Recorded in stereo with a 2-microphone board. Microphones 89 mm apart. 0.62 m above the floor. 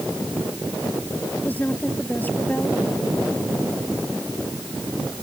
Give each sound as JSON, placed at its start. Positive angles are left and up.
{"t": 1.4, "sound": "a woman speaking", "side_deg": 20}